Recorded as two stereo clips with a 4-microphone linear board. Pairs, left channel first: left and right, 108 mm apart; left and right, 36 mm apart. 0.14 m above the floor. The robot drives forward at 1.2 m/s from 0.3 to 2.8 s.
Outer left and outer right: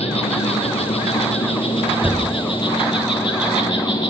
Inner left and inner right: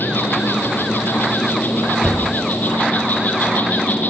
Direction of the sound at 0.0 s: 60° left (ahead or behind).